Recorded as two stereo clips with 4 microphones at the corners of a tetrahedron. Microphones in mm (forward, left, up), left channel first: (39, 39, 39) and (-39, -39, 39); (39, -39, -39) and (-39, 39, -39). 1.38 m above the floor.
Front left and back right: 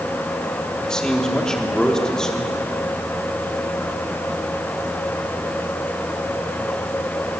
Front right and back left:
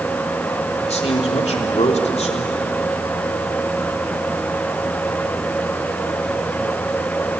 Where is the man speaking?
40° right, 3.5 m.